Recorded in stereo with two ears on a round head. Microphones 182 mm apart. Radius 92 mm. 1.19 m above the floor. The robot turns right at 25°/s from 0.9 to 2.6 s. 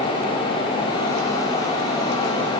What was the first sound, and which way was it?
Only background noise.